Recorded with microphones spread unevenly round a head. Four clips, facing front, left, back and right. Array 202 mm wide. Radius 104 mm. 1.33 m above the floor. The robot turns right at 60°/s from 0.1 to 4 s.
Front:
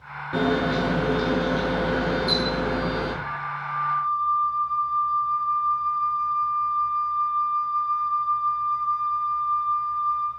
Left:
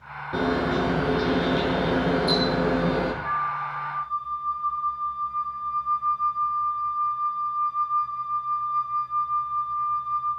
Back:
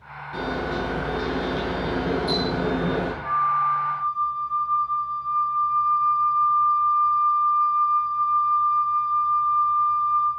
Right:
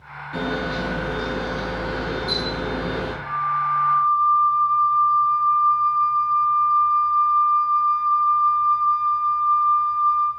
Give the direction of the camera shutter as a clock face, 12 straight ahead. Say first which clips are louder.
Left 2 dB, front 5 dB; 11 o'clock.